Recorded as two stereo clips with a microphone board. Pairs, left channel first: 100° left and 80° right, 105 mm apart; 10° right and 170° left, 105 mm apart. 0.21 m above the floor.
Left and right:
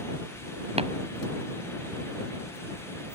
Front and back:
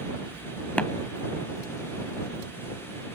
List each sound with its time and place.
0.8 s tapping: 90° right